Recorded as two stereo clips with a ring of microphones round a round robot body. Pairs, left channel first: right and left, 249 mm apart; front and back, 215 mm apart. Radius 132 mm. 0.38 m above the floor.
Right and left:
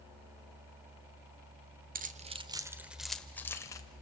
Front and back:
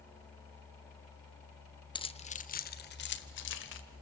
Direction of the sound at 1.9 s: 60° left.